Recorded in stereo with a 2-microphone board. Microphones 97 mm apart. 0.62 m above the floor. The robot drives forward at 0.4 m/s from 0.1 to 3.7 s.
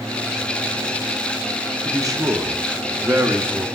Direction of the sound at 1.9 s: 35° right (ahead or behind).